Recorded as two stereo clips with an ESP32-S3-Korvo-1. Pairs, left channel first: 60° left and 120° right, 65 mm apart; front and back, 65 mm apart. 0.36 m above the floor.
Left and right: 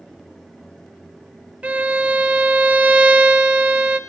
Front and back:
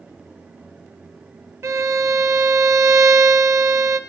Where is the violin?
Straight behind, 0.9 m.